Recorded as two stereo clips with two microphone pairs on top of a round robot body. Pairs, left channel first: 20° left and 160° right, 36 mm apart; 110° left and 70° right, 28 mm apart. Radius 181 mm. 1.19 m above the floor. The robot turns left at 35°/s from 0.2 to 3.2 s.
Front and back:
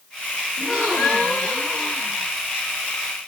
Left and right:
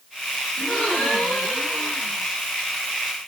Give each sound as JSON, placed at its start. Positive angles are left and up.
{"t": 0.6, "sound": "a gasp", "azimuth_deg": 150, "distance_m": 0.9}